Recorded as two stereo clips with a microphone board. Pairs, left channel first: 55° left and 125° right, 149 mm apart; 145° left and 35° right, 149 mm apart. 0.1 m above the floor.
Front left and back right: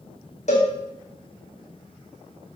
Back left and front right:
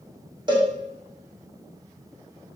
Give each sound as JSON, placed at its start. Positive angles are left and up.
{"t": 0.5, "sound": "a cowbell", "azimuth_deg": 20, "distance_m": 2.5}